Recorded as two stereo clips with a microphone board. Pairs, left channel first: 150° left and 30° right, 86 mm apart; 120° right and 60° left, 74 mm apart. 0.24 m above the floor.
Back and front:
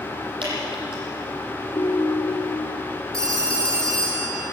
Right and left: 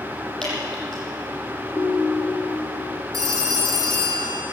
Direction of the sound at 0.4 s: 35° right.